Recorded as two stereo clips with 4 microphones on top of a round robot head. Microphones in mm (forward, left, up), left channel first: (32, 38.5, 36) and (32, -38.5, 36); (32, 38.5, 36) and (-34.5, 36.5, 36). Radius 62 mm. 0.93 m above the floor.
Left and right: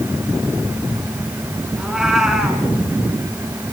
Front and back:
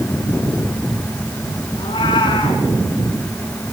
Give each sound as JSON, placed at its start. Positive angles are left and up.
{"t": 1.8, "sound": "a cat meowing", "azimuth_deg": -5, "distance_m": 5.0}